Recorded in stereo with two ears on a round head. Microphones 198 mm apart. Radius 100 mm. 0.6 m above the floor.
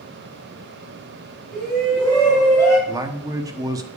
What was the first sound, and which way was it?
A shout, centre (ahead or behind).